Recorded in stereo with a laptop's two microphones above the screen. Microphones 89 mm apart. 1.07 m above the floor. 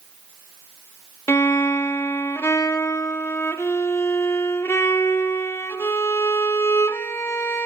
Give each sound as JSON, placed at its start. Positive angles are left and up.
{"t": 1.3, "sound": "a violin", "side_deg": 30, "distance_m": 1.1}